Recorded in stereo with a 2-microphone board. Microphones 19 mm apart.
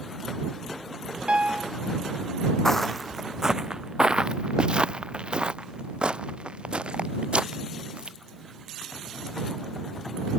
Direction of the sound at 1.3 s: 65° right (ahead or behind).